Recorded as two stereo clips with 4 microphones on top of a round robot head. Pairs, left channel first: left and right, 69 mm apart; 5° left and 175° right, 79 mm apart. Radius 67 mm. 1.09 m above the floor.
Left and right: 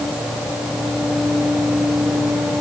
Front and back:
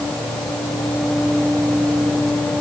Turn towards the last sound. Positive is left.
No sound to turn to.